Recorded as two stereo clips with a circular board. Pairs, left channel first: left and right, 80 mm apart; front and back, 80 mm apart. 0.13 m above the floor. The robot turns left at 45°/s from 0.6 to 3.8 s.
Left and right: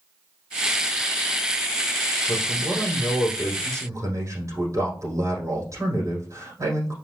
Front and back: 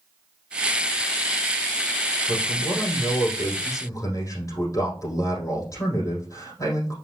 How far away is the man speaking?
About 5 m.